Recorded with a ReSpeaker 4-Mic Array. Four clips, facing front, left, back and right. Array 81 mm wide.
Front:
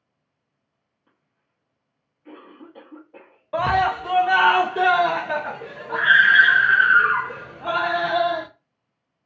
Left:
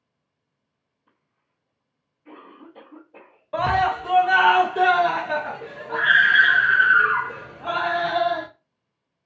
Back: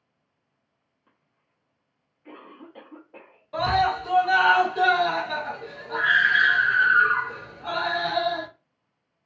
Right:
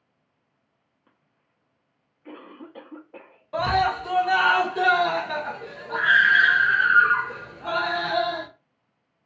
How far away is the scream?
About 0.6 m.